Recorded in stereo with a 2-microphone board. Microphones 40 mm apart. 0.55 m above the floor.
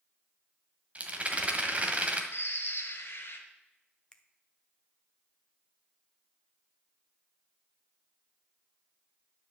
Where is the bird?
60° left (ahead or behind), 1.4 m.